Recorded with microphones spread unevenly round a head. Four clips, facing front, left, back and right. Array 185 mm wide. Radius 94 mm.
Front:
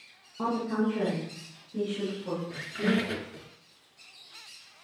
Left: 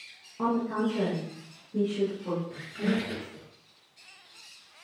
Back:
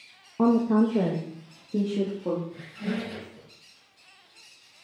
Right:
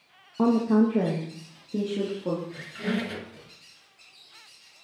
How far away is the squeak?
About 2.5 m.